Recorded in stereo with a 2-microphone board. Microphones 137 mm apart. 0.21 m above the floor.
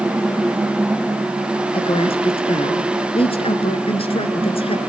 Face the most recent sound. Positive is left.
turn(degrees=45)  # may be behind; listen again after turning